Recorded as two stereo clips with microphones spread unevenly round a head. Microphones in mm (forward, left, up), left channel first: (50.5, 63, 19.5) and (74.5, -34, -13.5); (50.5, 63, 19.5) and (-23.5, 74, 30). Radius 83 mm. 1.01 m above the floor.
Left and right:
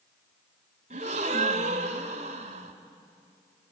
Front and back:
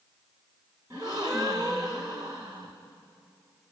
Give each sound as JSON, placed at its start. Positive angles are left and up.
{"t": 0.9, "sound": "a gasp", "azimuth_deg": -120, "distance_m": 1.6}